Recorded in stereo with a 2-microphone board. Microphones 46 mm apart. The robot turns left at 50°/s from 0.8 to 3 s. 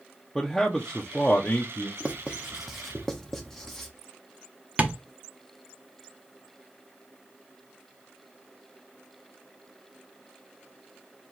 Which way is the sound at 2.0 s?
35° right (ahead or behind).